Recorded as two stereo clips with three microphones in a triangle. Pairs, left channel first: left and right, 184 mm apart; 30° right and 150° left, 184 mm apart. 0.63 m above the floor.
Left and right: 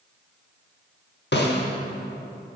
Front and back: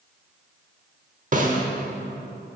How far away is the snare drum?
About 0.8 m.